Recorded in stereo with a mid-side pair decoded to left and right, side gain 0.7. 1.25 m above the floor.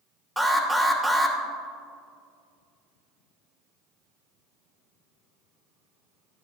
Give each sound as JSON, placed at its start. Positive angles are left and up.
{"t": 0.4, "sound": "an alarm", "azimuth_deg": -5, "distance_m": 2.0}